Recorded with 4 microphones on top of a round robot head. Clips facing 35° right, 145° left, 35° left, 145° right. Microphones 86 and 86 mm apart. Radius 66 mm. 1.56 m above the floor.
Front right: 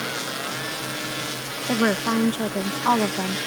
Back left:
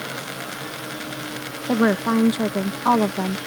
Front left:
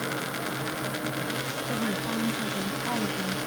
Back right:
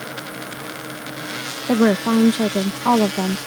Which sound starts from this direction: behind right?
A woman speaking, at 1.7 s.